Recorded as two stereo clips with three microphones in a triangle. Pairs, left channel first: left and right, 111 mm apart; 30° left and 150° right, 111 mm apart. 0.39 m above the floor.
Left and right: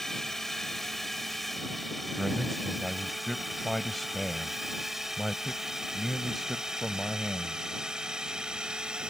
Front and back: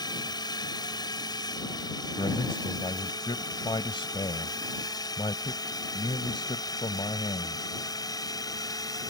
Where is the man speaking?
5° left.